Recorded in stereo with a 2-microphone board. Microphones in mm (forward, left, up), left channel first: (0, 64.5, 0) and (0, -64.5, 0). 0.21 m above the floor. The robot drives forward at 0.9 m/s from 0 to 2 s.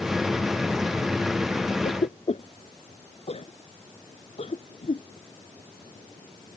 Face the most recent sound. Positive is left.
turn(degrees=60)  # may be behind; listen again after turning